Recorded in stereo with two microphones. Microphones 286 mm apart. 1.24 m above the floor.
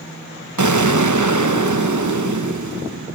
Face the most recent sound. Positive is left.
turn(degrees=-80)